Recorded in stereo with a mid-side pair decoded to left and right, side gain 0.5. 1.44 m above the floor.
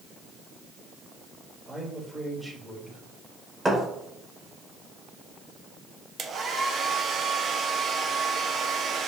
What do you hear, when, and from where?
1.7 s a man speaking: 15° right, 3.5 m
3.6 s a thud: 20° right, 2.5 m
6.2 s a hair dryer: 45° right, 1.1 m